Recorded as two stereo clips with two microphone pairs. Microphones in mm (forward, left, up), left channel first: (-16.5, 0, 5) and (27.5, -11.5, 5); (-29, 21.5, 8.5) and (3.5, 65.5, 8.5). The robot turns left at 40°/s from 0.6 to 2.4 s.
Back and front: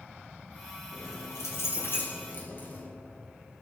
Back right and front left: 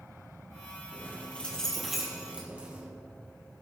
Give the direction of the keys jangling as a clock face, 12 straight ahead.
6 o'clock.